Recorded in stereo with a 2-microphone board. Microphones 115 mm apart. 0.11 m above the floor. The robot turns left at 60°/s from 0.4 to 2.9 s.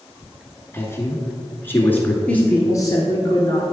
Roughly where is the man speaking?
Left.